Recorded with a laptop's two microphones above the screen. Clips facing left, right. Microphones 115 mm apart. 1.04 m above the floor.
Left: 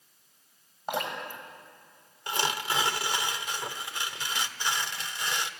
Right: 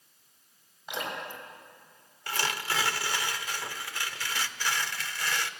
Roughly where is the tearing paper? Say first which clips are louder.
Left 2 dB; centre.